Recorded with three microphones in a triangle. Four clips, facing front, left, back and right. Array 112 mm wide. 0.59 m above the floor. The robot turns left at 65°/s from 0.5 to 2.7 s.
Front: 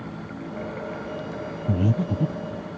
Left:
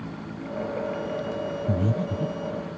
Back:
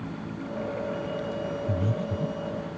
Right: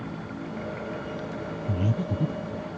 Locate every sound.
1.7 s breathing: 20° left; by 2.6 s 40° right